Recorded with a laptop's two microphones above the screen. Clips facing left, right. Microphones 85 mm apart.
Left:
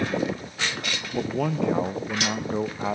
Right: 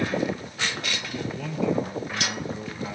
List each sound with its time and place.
1.1 s a man speaking: 60° left (ahead or behind), 0.6 m